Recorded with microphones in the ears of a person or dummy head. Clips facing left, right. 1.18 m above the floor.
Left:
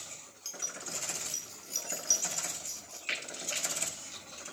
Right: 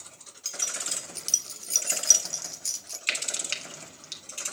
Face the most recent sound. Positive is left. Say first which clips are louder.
# right 2 dB
turn(degrees=-80)